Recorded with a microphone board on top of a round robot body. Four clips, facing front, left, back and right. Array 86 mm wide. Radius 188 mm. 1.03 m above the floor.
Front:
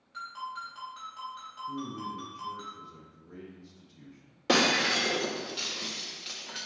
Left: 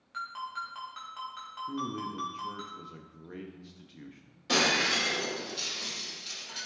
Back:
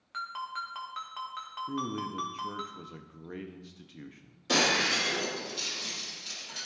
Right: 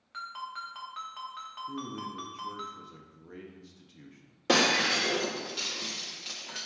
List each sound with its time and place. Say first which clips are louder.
0.1 s a ringtone: left 2 dB, back 2 dB; 175° right, 1.3 m
1.7 s a man speaking: left 4 dB, back 2 dB; 165° left, 0.6 m
4.5 s breaking glass: right 2 dB, front 2 dB; 40° right, 0.6 m